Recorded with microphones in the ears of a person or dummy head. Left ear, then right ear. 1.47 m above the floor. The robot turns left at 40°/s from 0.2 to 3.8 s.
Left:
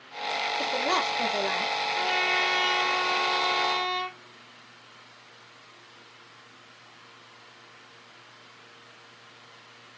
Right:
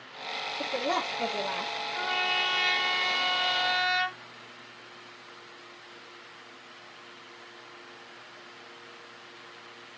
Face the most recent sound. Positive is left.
turn(degrees=-50)